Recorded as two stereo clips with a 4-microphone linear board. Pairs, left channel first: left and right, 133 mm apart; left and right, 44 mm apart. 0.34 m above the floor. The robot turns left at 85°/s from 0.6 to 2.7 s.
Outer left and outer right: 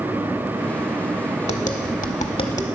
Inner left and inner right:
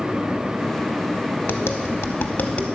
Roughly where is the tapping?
Left.